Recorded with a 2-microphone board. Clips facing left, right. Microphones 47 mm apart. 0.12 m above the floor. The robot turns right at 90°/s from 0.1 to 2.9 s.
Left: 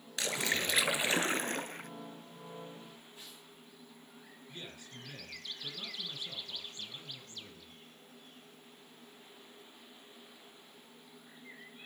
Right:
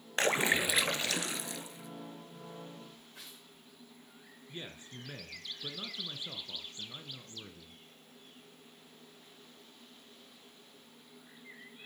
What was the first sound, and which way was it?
A splash, 50° right.